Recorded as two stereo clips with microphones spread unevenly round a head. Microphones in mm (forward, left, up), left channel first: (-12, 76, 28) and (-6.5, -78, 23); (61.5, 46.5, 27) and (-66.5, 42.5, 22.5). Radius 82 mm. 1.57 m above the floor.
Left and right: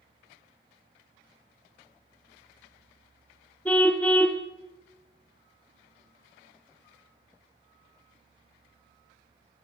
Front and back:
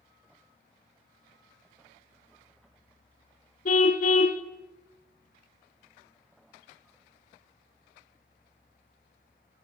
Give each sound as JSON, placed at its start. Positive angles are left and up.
{"t": 3.6, "sound": "a car horn", "azimuth_deg": 10, "distance_m": 2.5}